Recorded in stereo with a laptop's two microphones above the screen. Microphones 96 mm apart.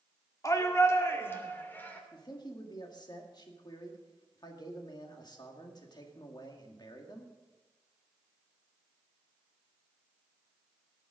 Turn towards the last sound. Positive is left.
turn(degrees=45)  # may be behind; listen again after turning